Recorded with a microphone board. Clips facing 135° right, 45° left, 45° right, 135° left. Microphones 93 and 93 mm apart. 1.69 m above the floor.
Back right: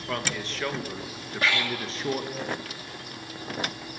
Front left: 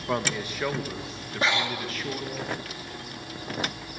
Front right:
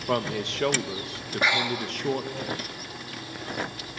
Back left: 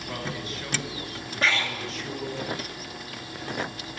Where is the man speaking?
25° right, 2 m; by 2.4 s 85° right, 2.5 m.